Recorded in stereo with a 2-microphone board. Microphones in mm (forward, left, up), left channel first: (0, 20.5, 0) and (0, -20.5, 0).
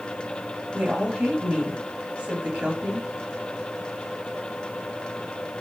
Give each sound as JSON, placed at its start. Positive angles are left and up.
{"t": 0.7, "sound": "a woman speaking", "side_deg": -30, "distance_m": 1.1}